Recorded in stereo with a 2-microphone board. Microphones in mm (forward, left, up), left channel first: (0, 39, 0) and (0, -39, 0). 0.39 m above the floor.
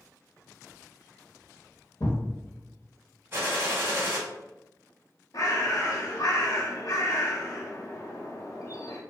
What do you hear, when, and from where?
2.0 s a thud: 50° left (ahead or behind), 1.0 m
3.3 s a gunshot: 30° right (ahead or behind), 0.9 m
5.3 s a bird: 55° left (ahead or behind), 0.7 m